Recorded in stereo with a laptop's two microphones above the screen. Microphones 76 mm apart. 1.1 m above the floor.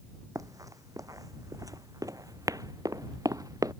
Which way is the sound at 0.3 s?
50° right (ahead or behind).